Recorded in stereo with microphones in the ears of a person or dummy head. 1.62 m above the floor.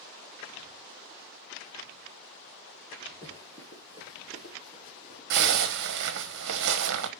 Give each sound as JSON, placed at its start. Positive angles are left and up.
{"t": 3.2, "sound": "running footsteps", "side_deg": 15, "distance_m": 1.9}
{"t": 5.3, "sound": "a zipper", "side_deg": -65, "distance_m": 1.4}